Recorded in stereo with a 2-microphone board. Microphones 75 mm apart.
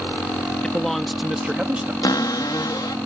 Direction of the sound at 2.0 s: 65° left (ahead or behind).